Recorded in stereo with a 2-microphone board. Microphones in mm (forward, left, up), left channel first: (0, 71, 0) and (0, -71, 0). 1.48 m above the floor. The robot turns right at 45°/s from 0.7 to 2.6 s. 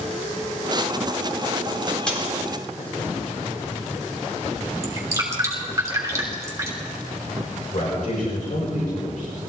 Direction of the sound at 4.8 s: 20° right (ahead or behind).